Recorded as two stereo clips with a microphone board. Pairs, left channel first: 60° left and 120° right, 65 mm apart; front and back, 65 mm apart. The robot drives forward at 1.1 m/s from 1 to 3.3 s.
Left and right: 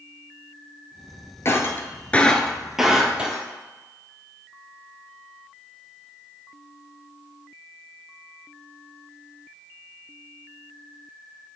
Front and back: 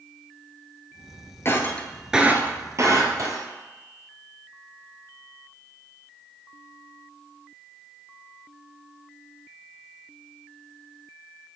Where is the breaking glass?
30° left, 0.9 m; by 3.5 s 165° left, 1.6 m.